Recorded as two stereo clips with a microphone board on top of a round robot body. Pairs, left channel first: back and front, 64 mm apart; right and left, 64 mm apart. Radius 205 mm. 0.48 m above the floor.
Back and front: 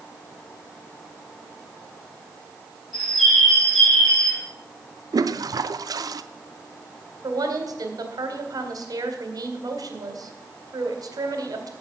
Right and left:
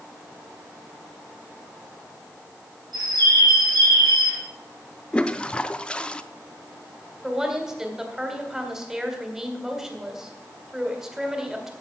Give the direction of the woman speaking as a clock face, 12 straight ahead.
12 o'clock.